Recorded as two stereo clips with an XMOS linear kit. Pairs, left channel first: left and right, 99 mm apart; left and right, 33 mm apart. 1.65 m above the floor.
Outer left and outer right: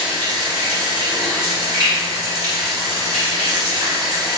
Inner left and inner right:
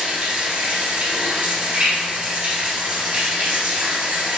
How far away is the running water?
About 2.5 m.